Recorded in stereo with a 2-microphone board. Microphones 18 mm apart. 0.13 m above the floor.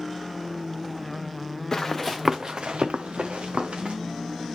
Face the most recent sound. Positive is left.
turn(degrees=-90)